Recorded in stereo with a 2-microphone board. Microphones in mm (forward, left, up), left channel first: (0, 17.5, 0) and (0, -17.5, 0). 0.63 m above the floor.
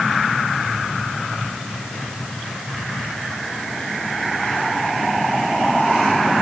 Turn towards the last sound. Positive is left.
No sound to turn to.